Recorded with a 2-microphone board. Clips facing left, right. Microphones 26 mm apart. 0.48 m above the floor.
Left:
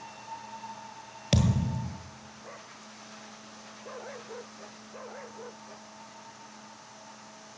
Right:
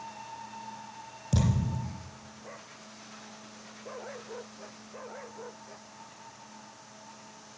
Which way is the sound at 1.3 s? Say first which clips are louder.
Left 2 dB; 55° left (ahead or behind).